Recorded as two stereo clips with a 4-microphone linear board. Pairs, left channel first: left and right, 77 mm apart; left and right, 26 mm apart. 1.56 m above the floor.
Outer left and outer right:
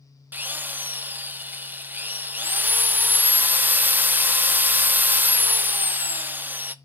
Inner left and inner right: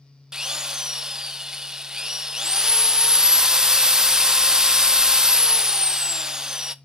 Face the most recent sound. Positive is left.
turn(degrees=-25)  # may be behind; listen again after turning